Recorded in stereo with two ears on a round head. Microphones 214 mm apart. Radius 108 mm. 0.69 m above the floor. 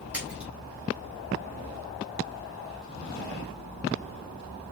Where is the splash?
5° right (ahead or behind), 3.5 m.